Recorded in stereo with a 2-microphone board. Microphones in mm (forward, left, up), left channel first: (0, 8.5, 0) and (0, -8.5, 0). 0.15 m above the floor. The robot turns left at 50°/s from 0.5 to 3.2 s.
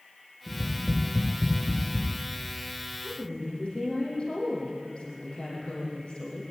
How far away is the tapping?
About 8.5 m.